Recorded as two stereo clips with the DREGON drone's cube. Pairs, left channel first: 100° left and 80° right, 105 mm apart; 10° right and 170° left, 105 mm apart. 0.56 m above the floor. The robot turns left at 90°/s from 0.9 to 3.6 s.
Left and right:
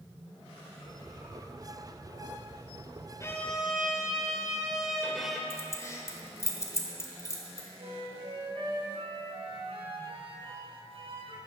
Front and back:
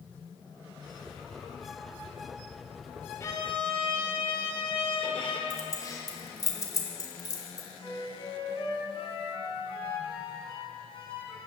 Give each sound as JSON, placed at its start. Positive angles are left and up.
{"t": 3.2, "sound": "a violin", "azimuth_deg": 45, "distance_m": 1.8}
{"t": 5.5, "sound": "keys jangling", "azimuth_deg": 40, "distance_m": 1.8}
{"t": 7.8, "sound": "a flute", "azimuth_deg": -45, "distance_m": 3.0}